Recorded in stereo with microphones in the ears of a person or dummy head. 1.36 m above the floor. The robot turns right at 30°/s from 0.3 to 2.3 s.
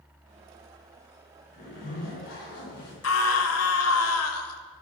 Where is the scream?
85° left, 2.5 m.